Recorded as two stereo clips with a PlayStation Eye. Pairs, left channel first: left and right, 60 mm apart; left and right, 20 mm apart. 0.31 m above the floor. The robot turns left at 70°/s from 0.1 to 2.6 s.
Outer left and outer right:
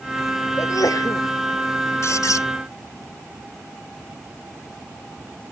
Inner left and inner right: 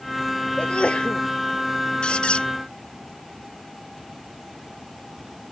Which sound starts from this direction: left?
A sneeze, at 0.6 s.